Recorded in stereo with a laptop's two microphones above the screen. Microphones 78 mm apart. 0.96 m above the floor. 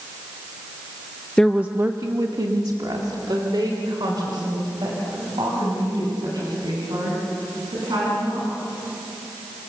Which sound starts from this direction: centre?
A woman speaking, at 1.4 s.